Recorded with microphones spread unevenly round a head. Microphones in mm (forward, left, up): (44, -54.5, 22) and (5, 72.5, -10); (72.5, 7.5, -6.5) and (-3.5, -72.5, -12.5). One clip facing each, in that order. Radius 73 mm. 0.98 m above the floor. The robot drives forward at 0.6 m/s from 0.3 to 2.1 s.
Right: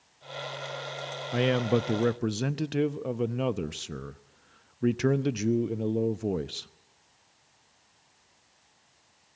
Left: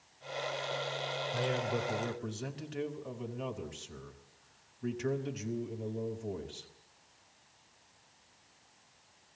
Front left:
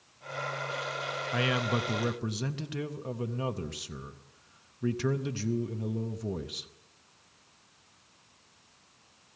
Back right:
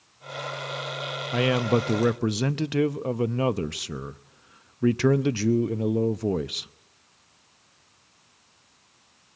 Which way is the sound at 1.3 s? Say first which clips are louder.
Right 10 dB, back right 8 dB; 70° right.